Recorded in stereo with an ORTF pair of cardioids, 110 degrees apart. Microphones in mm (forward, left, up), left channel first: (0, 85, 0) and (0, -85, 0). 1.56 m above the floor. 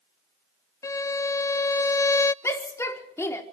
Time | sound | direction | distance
0.8 | a violin | 20° left | 0.5 m
2.4 | a shout | 15° left | 4.5 m